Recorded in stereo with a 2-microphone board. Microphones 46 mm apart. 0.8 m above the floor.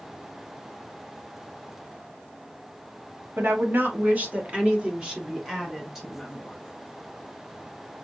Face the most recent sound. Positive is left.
turn(degrees=-5)  # may be behind; listen again after turning